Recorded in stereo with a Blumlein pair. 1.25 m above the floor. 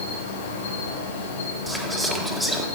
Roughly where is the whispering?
Ahead.